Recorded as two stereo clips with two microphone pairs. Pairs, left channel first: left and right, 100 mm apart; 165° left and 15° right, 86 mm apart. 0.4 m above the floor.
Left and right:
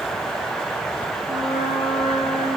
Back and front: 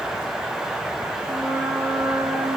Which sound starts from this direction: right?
A flute, at 1.3 s.